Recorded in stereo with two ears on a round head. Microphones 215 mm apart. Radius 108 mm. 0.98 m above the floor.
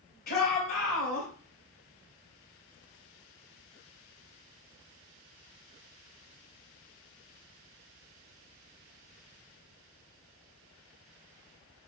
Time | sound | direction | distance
0.3 | a shout | 40° left (ahead or behind) | 4.5 m